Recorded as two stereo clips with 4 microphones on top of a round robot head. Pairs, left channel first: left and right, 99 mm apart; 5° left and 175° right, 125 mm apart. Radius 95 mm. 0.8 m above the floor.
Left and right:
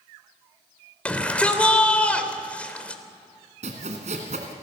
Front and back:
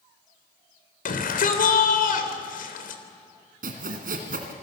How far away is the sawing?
About 1.8 m.